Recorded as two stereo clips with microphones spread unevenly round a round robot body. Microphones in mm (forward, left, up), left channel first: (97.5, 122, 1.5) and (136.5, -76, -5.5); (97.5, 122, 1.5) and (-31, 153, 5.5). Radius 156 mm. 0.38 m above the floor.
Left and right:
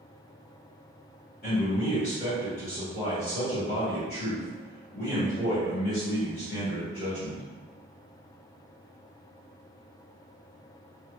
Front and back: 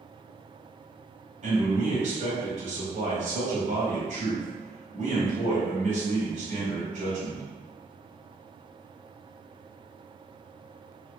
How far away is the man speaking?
About 2.0 m.